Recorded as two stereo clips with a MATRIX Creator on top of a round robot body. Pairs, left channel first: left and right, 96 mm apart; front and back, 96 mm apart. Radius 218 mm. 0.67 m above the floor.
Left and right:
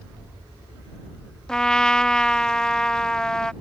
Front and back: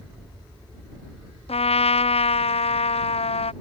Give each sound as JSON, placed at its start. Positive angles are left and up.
{"t": 1.5, "sound": "a trumpet", "azimuth_deg": 5}